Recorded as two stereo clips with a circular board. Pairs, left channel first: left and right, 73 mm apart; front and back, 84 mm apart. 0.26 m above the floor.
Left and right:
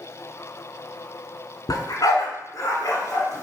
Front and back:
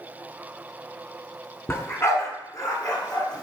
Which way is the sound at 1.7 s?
60° left.